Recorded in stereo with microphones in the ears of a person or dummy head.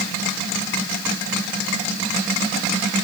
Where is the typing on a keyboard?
No typing on a keyboard in this recording.